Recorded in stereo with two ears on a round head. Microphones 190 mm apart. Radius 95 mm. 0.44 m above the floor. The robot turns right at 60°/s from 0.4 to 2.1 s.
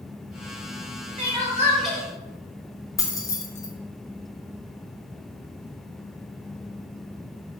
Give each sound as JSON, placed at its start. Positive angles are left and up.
{"t": 1.2, "sound": "crying", "azimuth_deg": -40, "distance_m": 1.0}
{"t": 3.0, "sound": "keys jangling", "side_deg": 15, "distance_m": 0.6}